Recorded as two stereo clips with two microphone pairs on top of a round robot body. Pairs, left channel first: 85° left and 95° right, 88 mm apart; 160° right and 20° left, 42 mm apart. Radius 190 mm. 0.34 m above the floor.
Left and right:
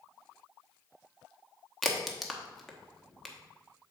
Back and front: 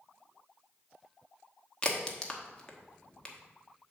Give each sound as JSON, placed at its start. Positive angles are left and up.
{"t": 1.8, "sound": "a crack", "azimuth_deg": 140, "distance_m": 1.4}